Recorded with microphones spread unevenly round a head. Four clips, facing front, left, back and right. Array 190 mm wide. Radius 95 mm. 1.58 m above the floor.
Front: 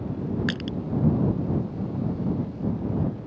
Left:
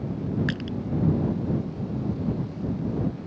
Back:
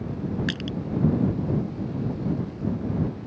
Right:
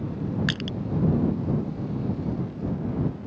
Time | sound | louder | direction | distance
0.5 | crushing | even, even | 80° right | ?